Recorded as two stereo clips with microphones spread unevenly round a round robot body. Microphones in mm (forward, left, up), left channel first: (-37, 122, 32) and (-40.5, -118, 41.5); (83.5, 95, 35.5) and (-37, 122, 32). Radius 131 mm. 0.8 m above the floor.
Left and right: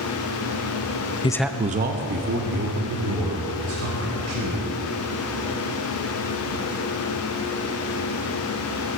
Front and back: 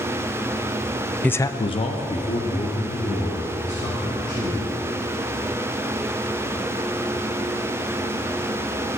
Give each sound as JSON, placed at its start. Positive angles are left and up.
{"t": 1.2, "sound": "a man speaking", "azimuth_deg": 60, "distance_m": 0.6}